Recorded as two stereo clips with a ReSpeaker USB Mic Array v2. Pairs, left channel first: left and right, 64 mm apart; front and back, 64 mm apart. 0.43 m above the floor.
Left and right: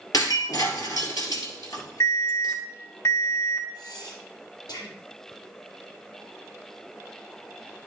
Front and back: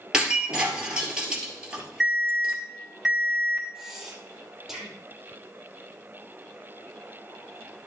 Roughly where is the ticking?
No ticking in this recording.